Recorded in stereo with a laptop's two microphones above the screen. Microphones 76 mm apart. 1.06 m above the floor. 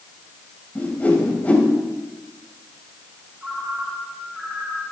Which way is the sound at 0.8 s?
20° left (ahead or behind).